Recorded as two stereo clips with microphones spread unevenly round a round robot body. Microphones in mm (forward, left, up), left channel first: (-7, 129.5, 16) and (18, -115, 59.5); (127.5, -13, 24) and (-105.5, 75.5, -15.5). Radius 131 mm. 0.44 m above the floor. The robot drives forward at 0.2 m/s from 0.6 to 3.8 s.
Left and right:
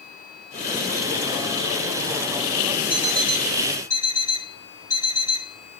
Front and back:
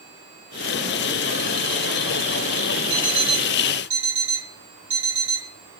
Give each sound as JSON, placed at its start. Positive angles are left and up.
{"t": 2.9, "sound": "an alarm clock", "azimuth_deg": 180, "distance_m": 2.0}